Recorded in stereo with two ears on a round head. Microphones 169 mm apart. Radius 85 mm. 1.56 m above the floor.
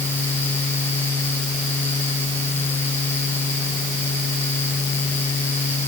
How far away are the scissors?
I don't hear scissors.